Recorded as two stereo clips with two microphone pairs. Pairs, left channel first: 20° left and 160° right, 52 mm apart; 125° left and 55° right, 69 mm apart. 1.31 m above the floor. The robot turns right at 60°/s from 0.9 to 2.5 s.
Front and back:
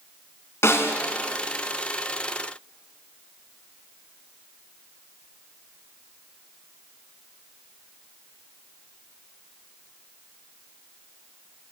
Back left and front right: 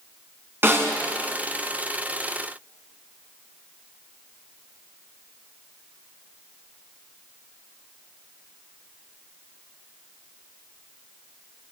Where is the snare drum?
Straight ahead, 2.5 m.